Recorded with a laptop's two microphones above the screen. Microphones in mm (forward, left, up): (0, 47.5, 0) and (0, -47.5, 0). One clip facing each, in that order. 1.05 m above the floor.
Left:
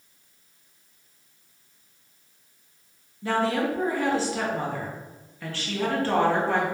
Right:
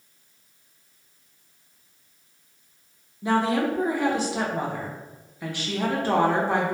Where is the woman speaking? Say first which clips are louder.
Right 2 dB; 15° right (ahead or behind), 0.5 m.